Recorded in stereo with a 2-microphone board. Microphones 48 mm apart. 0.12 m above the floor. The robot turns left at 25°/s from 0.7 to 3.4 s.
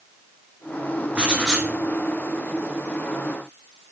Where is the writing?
20° right (ahead or behind), 1.6 m; by 1.7 s 10° right (ahead or behind), 1.6 m.